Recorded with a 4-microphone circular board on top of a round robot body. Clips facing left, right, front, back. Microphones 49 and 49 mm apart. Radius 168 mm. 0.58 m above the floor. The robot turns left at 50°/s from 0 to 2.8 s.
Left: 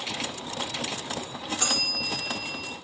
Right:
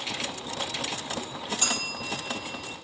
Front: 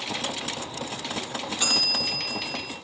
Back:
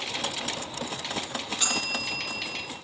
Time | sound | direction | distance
1.6 | a bell | 85° left | 4 m